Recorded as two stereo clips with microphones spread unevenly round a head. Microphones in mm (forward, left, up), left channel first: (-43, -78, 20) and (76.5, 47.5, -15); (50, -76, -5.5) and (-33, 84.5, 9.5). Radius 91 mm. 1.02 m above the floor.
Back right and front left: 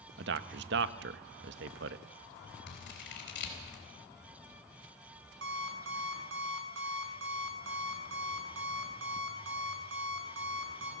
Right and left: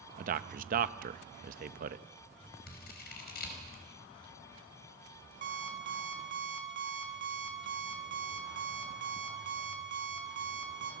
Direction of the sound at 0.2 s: 70° left.